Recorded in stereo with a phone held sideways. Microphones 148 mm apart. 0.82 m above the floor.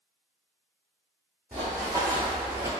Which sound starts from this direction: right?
Running footsteps, at 1.5 s.